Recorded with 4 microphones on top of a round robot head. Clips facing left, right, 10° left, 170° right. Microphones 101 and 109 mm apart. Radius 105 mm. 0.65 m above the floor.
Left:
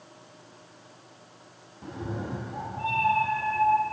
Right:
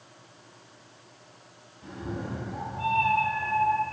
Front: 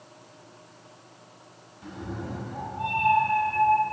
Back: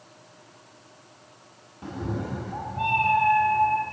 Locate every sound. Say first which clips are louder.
1.8 s a cat meowing: left 1 dB, back 4 dB; 140° left, 0.6 m; by 3.8 s 160° right, 1.2 m